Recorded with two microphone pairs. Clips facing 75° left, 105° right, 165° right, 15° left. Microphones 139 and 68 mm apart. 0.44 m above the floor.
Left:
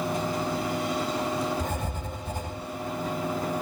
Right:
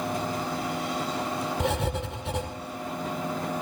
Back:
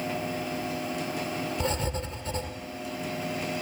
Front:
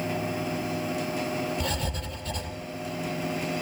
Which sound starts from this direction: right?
Writing, at 1.6 s.